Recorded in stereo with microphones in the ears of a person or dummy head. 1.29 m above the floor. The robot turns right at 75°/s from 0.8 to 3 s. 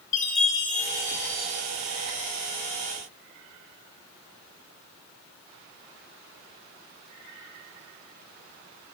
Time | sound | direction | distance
0.1 | a chime | 130° left | 0.7 m